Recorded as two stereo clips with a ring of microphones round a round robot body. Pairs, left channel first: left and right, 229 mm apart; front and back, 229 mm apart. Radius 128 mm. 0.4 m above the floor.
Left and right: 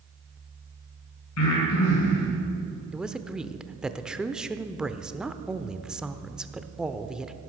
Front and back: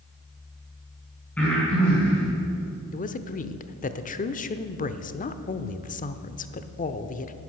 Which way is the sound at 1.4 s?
85° left.